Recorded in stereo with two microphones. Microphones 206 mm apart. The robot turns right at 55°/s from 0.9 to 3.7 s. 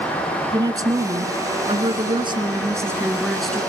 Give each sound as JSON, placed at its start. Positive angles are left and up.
{"t": 0.5, "sound": "a woman speaking", "side_deg": -15, "distance_m": 1.2}